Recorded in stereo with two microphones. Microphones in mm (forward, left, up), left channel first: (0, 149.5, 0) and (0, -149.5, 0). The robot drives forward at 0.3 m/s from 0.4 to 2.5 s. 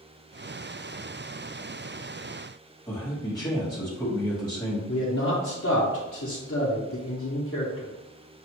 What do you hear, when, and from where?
2.9 s a man speaking: 15° left (ahead or behind), 1.0 m
4.9 s a man speaking: 50° left (ahead or behind), 0.9 m